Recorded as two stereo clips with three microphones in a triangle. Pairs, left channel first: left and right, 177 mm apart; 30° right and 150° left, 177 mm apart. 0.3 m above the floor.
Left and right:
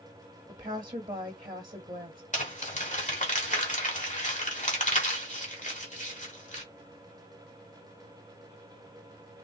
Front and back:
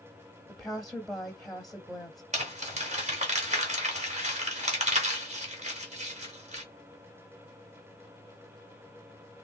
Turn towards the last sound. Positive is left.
turn(degrees=115)